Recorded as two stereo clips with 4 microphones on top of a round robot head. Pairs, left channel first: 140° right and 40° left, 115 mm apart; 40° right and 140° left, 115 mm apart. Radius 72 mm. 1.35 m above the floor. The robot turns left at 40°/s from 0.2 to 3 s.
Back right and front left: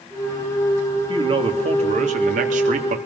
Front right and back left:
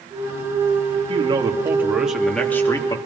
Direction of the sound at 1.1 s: 95° left.